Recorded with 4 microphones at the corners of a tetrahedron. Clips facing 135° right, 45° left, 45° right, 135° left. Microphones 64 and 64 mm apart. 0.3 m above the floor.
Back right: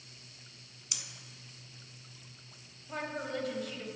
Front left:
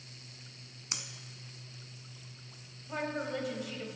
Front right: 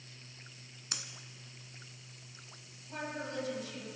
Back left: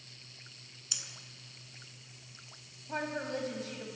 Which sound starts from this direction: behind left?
A woman speaking, at 2.9 s.